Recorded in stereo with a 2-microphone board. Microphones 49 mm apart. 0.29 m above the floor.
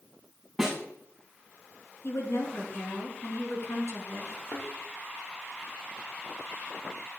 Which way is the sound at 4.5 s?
50° left (ahead or behind).